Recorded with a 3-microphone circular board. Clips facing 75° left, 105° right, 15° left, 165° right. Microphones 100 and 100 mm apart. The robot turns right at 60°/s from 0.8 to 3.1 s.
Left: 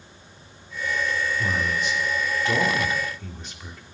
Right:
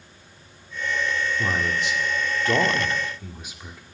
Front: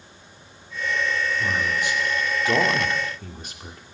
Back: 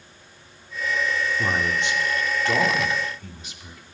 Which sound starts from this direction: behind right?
A man speaking, at 1.4 s.